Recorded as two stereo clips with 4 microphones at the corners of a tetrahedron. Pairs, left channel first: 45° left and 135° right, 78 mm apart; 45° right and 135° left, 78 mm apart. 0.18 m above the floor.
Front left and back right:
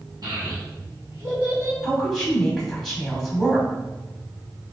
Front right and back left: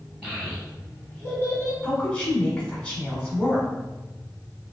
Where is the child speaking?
130° right, 1.9 m; by 1.7 s 85° right, 1.7 m.